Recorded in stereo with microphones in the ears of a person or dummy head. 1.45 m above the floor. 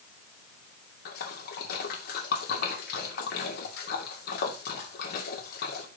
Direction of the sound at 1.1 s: 55° left (ahead or behind).